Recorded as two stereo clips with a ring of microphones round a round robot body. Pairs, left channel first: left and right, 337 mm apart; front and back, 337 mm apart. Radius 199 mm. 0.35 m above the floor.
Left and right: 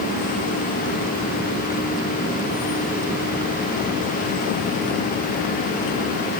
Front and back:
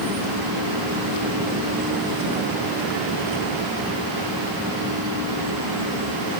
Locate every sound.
Only background noise.